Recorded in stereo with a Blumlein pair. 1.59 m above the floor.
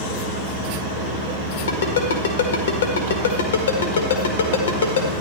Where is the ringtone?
65° left, 1.7 m.